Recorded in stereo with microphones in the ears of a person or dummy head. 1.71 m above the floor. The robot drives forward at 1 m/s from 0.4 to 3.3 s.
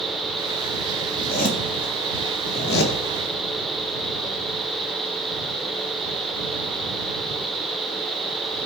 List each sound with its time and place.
1.1 s a zipper: 35° left (ahead or behind), 4 m; by 3.0 s 65° left (ahead or behind), 2.5 m